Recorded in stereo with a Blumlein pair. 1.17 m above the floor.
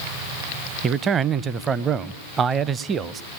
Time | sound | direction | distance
0.8 | a man speaking | 25° right | 0.6 m